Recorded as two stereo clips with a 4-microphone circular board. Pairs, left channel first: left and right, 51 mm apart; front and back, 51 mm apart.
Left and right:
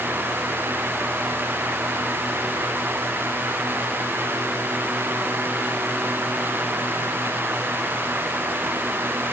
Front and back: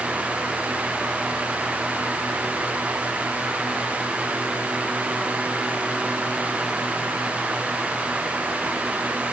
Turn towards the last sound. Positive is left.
No sound to turn to.